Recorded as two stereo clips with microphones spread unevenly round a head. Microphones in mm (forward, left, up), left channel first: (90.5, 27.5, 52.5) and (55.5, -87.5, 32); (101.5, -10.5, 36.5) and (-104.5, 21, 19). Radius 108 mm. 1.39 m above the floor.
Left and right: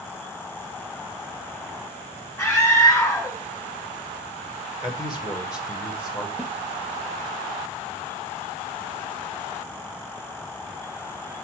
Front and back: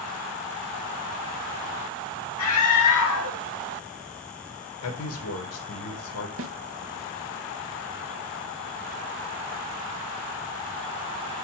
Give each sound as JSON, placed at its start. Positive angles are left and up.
{"t": 2.4, "sound": "a scream", "azimuth_deg": 0, "distance_m": 1.7}
{"t": 4.8, "sound": "a man speaking", "azimuth_deg": 15, "distance_m": 1.7}
{"t": 6.4, "sound": "a snare drum", "azimuth_deg": 165, "distance_m": 0.8}